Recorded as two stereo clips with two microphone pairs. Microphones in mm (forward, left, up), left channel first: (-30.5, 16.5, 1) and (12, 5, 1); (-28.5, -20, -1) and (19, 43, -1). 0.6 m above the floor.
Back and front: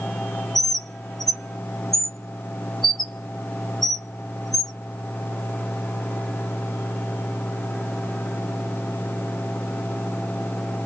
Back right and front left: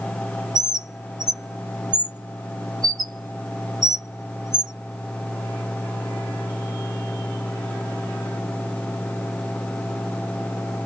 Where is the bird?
80° left, 0.6 m.